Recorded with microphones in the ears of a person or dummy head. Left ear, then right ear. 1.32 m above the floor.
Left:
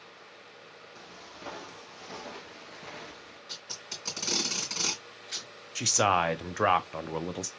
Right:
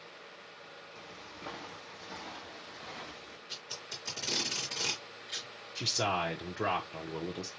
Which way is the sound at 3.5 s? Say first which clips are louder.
Left 3 dB; 70° left (ahead or behind).